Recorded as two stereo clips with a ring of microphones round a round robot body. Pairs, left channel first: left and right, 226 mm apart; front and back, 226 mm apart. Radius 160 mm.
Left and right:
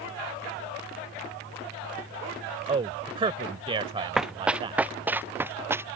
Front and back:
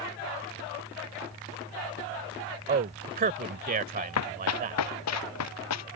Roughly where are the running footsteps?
Ahead.